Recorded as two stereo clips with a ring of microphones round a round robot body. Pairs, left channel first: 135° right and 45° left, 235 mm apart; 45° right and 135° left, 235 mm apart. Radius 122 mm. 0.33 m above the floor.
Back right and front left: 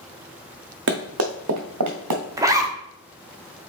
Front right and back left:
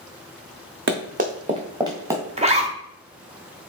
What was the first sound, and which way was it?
Running footsteps, 90° left.